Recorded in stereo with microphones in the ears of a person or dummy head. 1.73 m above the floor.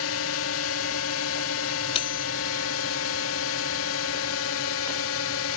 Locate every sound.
0.0 s a drone: 70° left (ahead or behind)
1.9 s cutlery clinking: 35° left (ahead or behind)